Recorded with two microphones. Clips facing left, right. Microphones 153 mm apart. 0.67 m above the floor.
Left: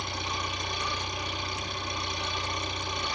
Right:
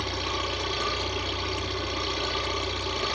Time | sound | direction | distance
0.0 | an engine running | 70° right (ahead or behind) | 9.5 m